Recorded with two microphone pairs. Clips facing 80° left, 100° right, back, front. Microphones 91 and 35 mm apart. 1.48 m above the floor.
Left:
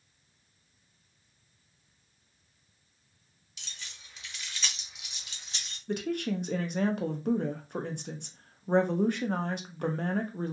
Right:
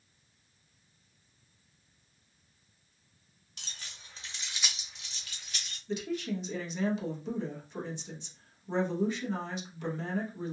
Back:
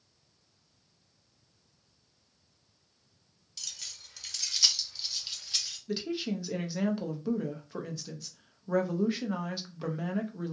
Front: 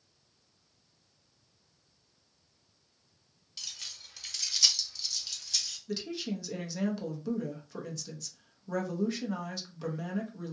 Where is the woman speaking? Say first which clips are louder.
Left 3 dB, back 3 dB; 110° left, 0.5 m.